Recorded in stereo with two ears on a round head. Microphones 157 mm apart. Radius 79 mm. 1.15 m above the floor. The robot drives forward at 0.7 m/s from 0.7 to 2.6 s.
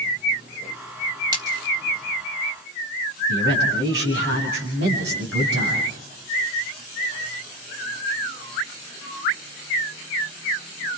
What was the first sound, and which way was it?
A splash, 25° right (ahead or behind).